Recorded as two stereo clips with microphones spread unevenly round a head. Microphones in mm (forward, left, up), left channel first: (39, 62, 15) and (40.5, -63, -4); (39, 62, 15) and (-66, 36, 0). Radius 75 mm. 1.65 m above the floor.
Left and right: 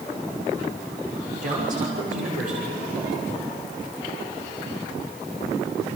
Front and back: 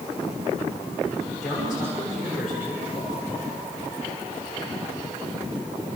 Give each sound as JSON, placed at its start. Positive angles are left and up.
{"t": 1.4, "sound": "a man speaking", "azimuth_deg": -75, "distance_m": 6.0}